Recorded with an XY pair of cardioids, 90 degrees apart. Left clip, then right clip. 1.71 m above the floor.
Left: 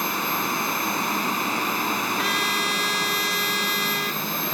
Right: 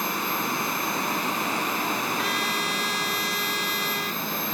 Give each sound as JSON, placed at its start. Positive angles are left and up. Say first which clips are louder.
{"t": 0.0, "sound": "a machine running", "louder": "left 2 dB", "azimuth_deg": 15}
{"t": 2.2, "sound": "a trumpet", "louder": "left 4 dB", "azimuth_deg": 25}